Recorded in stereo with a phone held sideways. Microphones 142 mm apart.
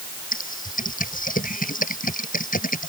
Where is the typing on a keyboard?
70° left (ahead or behind).